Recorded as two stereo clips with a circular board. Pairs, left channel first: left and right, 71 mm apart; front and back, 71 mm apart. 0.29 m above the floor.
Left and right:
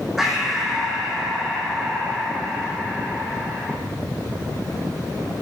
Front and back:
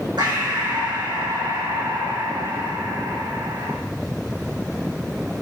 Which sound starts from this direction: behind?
Breathing, at 0.2 s.